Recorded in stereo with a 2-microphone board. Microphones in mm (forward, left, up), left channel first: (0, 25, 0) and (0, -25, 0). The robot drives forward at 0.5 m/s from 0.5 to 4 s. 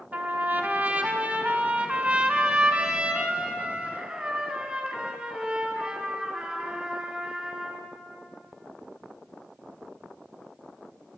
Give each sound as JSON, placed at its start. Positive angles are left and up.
{"t": 0.1, "sound": "a trumpet", "side_deg": -35, "distance_m": 1.9}